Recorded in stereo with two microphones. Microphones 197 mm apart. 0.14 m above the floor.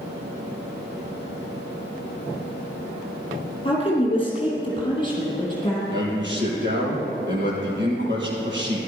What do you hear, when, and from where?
3.6 s a woman speaking: 25° left (ahead or behind), 3.5 m
5.9 s a man speaking: 70° right (ahead or behind), 4.5 m